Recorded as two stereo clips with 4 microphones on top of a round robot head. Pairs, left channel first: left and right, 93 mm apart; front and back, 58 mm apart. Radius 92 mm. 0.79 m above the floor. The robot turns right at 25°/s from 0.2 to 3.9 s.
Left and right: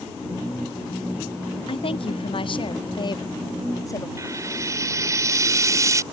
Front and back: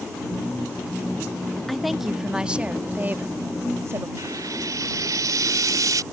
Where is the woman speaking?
85° left; by 4.1 s 140° left.